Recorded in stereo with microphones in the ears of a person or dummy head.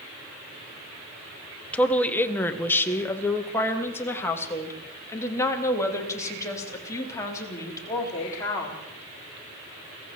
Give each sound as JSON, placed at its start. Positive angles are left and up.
{"t": 1.7, "sound": "a woman speaking", "side_deg": 10, "distance_m": 1.4}